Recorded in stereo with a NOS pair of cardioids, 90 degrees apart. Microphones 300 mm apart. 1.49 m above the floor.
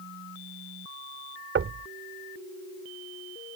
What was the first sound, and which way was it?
Knocking, 45° right.